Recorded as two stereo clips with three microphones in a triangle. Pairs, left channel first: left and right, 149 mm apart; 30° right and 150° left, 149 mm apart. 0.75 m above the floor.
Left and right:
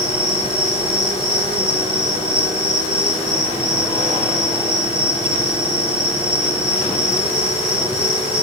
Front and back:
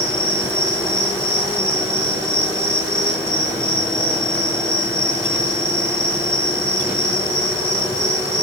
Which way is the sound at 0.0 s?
110° right.